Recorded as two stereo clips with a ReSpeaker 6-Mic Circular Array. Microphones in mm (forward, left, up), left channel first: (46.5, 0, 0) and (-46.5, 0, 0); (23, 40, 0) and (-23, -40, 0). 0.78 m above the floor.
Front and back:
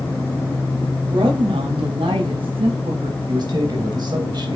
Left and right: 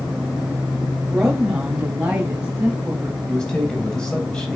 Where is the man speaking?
140° left, 3.5 m.